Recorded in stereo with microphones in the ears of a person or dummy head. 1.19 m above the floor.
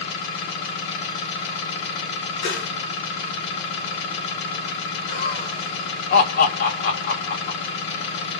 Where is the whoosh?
70° left (ahead or behind), 1.3 m.